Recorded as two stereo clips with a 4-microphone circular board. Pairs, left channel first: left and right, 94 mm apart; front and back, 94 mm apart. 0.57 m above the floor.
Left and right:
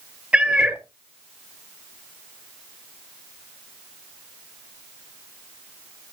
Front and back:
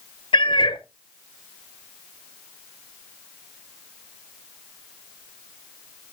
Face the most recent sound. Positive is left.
turn(degrees=-15)